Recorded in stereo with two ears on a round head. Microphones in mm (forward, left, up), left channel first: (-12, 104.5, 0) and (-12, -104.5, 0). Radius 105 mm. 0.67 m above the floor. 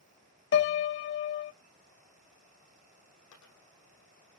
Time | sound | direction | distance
0.5 | a piano | 50° left (ahead or behind) | 0.6 m
3.3 | a dropped coin | 85° left | 7 m